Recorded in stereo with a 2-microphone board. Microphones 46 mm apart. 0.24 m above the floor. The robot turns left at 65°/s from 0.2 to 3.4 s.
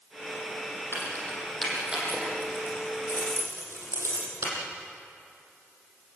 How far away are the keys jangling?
About 7 m.